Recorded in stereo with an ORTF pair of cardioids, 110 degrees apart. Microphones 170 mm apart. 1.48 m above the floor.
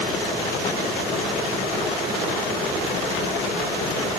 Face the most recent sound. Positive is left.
No sound to turn to.